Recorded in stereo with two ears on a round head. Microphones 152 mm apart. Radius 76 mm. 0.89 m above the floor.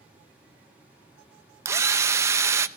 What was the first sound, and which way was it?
A drill, 15° right (ahead or behind).